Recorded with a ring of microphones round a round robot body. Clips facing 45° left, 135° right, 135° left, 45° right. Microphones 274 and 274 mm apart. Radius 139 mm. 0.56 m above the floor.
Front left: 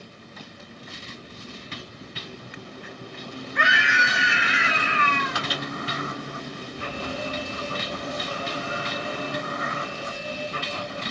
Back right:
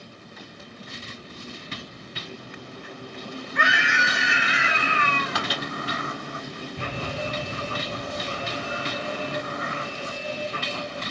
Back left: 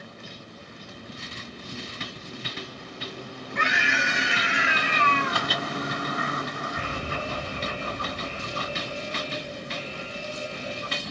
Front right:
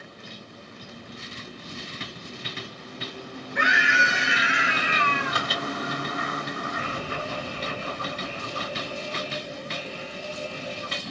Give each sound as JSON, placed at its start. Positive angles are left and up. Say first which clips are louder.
{"t": 3.5, "sound": "a scream", "louder": "even, front right 1 dB", "azimuth_deg": -125, "distance_m": 6.5}
{"t": 5.3, "sound": "a microwave", "louder": "back right 1 dB, back left 1 dB", "azimuth_deg": -115, "distance_m": 3.5}
{"t": 6.8, "sound": "an alarm", "louder": "even, even", "azimuth_deg": -155, "distance_m": 5.5}